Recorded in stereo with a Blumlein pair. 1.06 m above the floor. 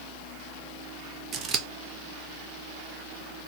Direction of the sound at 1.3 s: 25° right.